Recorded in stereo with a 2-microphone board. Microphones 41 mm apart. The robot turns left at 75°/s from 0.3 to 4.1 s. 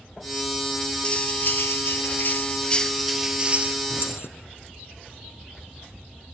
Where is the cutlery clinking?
150° left, 1.5 m; by 3.8 s 50° right, 1.5 m.